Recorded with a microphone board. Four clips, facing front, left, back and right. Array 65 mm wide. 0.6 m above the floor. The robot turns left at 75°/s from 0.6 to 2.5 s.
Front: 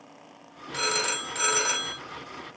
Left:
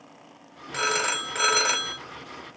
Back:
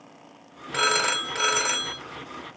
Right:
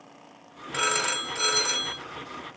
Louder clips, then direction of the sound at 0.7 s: Left 1 dB, back 5 dB; 175° left.